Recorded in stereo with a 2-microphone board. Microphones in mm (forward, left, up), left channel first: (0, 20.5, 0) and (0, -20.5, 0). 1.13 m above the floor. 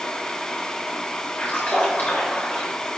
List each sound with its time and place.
1.4 s a splash: 40° left (ahead or behind), 3.5 m